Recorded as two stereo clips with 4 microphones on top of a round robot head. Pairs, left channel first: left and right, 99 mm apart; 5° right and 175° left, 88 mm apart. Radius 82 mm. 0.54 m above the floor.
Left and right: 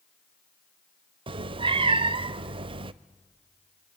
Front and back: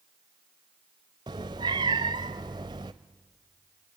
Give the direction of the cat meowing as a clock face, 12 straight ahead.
4 o'clock.